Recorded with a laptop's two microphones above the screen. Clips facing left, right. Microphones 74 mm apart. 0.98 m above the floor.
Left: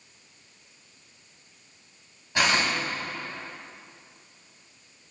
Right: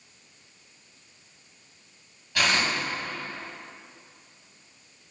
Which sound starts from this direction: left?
Tearing paper, at 2.4 s.